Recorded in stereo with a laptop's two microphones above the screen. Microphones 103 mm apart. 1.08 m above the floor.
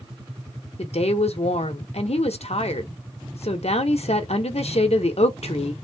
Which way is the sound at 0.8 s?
75° left (ahead or behind).